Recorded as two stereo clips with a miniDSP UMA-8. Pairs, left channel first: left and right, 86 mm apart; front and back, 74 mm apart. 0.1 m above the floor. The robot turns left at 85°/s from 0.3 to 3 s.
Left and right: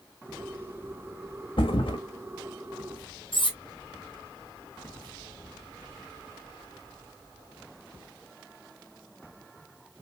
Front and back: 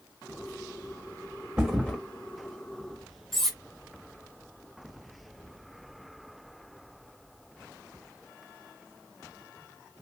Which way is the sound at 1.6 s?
110° left.